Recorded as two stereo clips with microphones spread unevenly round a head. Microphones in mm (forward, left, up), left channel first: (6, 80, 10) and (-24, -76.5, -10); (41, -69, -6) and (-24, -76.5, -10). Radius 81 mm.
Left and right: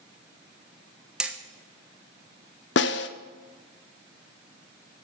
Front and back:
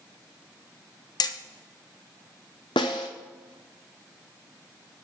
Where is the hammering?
15° right, 1.0 m.